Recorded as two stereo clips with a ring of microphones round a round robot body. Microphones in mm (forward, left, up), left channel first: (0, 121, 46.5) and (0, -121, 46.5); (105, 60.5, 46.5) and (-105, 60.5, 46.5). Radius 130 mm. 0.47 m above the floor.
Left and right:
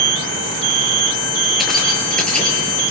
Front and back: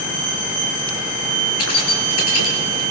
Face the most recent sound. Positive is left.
turn(degrees=5)